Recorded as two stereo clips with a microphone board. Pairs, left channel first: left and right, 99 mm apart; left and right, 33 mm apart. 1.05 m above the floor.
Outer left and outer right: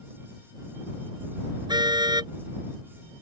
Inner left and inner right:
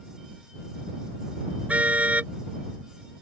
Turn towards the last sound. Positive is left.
turn(degrees=-45)  # may be behind; listen again after turning